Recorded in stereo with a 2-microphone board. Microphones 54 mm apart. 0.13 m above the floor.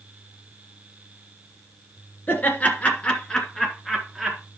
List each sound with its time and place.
2.3 s laughter: 35° left (ahead or behind), 2.0 m; by 4.4 s 5° right (ahead or behind), 1.9 m